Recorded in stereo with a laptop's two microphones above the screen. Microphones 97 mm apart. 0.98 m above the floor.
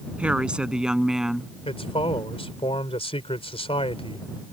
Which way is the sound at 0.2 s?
15° right (ahead or behind).